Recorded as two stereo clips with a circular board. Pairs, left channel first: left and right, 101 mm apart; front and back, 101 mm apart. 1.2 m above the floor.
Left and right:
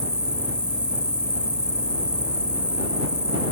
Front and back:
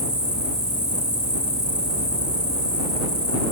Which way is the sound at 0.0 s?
165° left.